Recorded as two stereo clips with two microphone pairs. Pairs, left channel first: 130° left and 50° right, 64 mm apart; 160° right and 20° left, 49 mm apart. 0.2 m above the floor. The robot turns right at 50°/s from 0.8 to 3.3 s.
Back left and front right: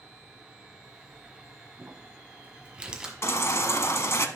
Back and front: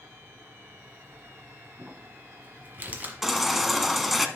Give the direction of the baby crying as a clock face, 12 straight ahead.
9 o'clock.